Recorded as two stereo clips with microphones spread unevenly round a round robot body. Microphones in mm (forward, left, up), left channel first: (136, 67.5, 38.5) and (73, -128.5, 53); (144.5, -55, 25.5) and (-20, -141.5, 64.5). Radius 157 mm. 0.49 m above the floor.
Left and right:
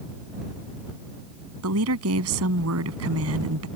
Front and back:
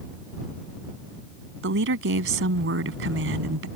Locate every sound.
1.6 s a woman speaking: 140° right